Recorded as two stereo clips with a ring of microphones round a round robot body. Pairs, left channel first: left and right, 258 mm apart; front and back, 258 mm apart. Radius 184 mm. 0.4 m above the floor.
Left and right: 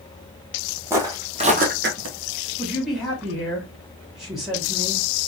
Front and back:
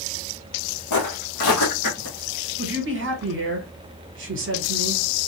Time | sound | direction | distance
0.9 | footsteps | 10° right | 1.3 m
2.6 | a man speaking | straight behind | 1.2 m